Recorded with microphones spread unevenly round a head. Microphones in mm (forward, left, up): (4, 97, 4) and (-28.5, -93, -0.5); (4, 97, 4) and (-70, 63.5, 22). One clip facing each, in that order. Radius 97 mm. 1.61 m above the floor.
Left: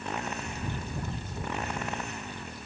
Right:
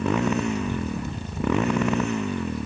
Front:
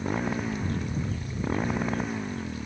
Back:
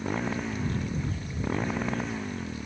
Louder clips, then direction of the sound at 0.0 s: Right 13 dB, front 1 dB; 65° right.